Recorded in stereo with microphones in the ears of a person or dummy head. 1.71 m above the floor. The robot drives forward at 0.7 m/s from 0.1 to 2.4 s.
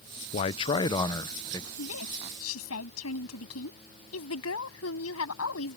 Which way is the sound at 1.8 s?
90° left.